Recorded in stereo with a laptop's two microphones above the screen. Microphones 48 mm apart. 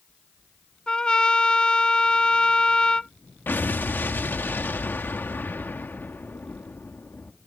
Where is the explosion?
55° left (ahead or behind).